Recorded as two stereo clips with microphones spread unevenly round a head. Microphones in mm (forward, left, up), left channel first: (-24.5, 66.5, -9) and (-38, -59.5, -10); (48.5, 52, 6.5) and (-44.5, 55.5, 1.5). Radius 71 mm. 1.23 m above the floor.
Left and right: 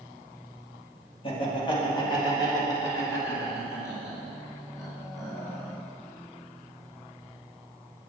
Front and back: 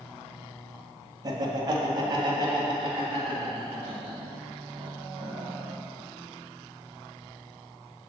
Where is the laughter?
130° left, 1.6 m; by 5.7 s 155° left, 4.5 m.